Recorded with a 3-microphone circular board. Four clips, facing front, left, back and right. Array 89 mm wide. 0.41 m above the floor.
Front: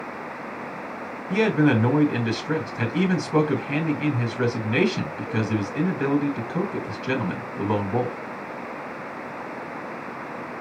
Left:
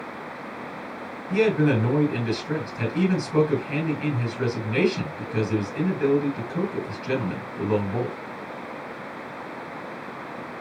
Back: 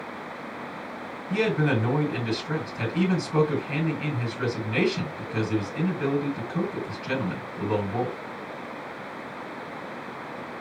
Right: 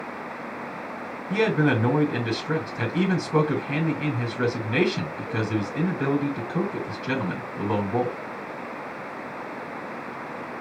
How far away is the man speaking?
About 2.5 m.